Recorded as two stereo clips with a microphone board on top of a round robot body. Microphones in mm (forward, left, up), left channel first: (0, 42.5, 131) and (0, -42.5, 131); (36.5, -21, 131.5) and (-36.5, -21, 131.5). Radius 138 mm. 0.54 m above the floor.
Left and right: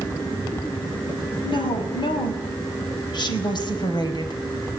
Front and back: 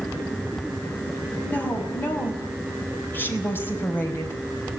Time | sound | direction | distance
1.4 | a woman speaking | 70° left | 6 m